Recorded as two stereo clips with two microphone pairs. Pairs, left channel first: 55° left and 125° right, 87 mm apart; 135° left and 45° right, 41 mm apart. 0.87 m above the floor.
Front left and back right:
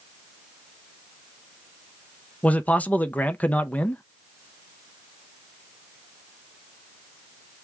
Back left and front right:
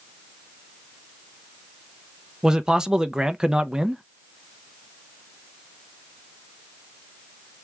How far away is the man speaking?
About 0.6 m.